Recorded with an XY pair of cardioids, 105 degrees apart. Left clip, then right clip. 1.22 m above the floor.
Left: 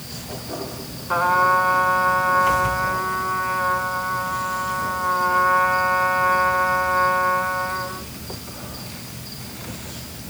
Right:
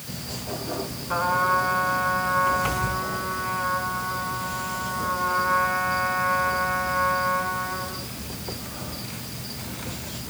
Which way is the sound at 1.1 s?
45° left.